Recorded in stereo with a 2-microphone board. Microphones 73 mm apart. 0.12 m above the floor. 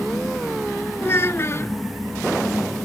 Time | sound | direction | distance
1.0 | a child speaking | 35° left (ahead or behind) | ?